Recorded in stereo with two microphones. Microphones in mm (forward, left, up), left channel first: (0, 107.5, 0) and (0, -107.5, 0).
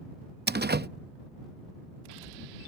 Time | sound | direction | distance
0.5 | a door slam | 50° right (ahead or behind) | ?